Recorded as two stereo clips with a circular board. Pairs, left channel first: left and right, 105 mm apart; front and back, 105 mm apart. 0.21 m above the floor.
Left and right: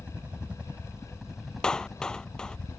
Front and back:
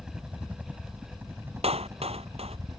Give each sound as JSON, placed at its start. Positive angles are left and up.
{"t": 0.0, "sound": "a helicopter", "azimuth_deg": -120}
{"t": 1.6, "sound": "a clap", "azimuth_deg": 175}